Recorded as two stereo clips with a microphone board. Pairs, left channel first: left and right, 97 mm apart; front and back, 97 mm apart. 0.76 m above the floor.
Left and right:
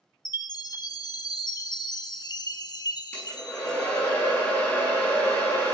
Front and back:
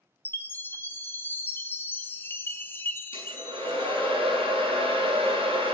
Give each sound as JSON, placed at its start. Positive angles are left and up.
{"t": 0.2, "sound": "a chime", "azimuth_deg": 60, "distance_m": 0.9}
{"t": 3.1, "sound": "a hair dryer", "azimuth_deg": 160, "distance_m": 7.0}